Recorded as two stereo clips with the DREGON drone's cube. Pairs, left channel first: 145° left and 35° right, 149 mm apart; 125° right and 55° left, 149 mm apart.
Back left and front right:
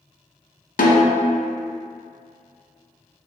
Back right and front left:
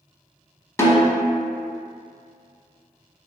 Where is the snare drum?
165° left, 0.6 m.